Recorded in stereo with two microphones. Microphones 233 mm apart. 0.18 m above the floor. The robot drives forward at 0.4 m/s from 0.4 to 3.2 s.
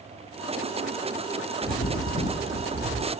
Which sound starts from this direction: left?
A bird, at 1.6 s.